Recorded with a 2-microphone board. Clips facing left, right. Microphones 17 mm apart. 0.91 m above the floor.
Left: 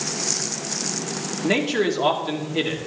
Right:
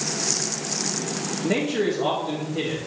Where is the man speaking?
70° left (ahead or behind), 2.5 m.